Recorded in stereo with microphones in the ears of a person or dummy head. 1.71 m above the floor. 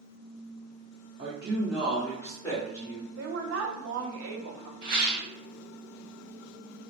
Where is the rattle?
50° right (ahead or behind), 0.8 m.